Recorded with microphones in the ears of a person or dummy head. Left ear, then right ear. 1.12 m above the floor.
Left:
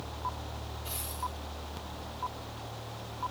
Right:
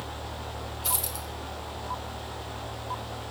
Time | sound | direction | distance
0.8 | a dropped coin | 70° right (ahead or behind) | 1.9 m